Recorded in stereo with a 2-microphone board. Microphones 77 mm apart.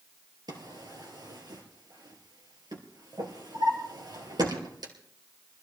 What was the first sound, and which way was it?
A drawer, 70° right (ahead or behind).